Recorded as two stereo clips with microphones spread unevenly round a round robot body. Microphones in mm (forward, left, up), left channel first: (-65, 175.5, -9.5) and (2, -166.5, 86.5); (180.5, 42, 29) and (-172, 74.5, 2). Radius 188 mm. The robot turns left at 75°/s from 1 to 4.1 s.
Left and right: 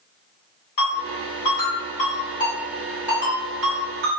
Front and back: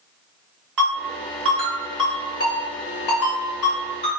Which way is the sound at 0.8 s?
155° left.